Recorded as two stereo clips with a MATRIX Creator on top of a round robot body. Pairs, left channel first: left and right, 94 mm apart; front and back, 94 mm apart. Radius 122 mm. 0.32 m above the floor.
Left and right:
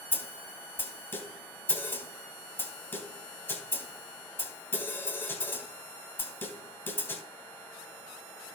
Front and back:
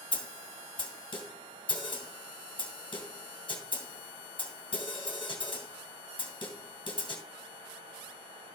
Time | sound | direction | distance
0.1 | a snare drum | 25° left | 2.5 m